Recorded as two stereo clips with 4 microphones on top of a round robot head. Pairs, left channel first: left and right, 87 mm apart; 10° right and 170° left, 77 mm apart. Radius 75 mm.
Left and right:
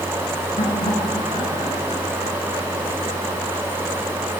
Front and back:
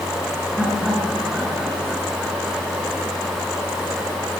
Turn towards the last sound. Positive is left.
turn(degrees=75)